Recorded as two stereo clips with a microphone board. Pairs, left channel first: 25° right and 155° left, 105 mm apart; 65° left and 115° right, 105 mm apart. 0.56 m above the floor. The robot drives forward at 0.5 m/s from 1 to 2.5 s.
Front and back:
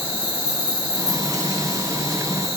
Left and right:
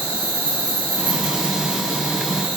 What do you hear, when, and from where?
0.0 s an insect: 85° left, 1.9 m; by 2.6 s 115° left, 2.0 m